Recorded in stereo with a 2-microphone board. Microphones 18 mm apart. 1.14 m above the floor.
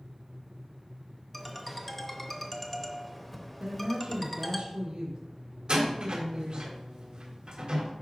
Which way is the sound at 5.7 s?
70° right (ahead or behind).